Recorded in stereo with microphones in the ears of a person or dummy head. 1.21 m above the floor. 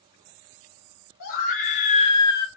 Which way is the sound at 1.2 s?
45° left (ahead or behind).